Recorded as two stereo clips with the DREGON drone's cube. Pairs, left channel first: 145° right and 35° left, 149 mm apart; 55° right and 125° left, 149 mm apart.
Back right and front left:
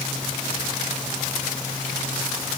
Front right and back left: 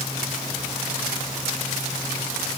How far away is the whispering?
I don't hear whispering.